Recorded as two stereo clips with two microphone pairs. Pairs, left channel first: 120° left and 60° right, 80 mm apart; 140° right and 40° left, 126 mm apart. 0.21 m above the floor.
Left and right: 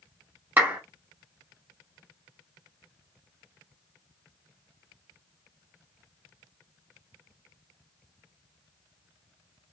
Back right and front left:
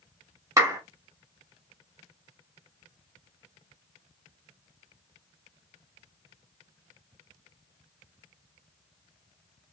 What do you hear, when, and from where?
0.6 s a clap: 5° right, 1.0 m